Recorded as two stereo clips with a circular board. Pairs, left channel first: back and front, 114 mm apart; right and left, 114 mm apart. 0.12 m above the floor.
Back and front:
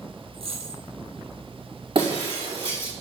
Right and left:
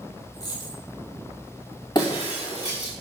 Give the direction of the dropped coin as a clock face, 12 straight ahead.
1 o'clock.